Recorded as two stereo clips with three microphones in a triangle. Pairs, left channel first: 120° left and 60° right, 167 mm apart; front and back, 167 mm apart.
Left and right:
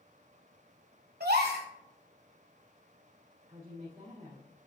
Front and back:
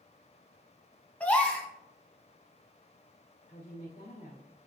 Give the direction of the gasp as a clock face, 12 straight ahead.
3 o'clock.